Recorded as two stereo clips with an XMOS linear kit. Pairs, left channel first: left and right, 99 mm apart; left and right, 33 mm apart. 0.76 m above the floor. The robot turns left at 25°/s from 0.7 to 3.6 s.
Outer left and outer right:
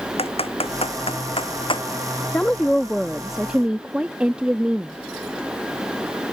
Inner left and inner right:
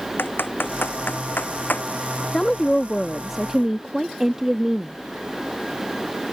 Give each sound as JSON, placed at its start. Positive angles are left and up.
{"t": 0.2, "sound": "typing on a keyboard", "side_deg": 85}
{"t": 2.3, "sound": "a woman speaking", "azimuth_deg": 20}